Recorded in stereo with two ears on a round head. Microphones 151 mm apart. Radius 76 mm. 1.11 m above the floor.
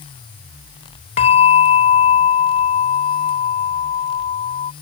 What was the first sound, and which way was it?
A bell, 40° left (ahead or behind).